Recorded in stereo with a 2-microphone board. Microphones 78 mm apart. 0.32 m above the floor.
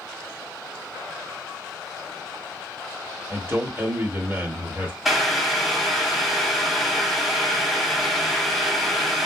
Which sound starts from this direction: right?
A man speaking, at 3.3 s.